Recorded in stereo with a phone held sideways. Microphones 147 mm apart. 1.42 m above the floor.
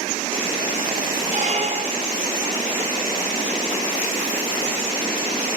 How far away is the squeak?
About 1.4 m.